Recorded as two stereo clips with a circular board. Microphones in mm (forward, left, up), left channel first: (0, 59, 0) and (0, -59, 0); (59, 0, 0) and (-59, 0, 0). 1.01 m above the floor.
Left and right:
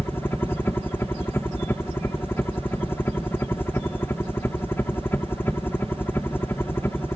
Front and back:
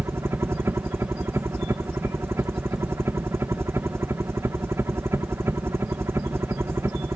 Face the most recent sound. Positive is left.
turn(degrees=140)